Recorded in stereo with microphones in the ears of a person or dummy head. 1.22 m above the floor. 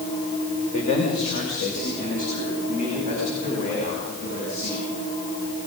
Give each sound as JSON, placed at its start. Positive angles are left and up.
{"t": 0.7, "sound": "a man speaking", "side_deg": 40, "distance_m": 3.5}